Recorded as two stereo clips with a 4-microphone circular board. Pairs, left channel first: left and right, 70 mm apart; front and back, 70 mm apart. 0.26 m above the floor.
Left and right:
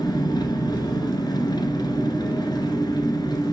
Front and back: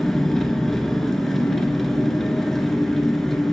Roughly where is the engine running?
Left.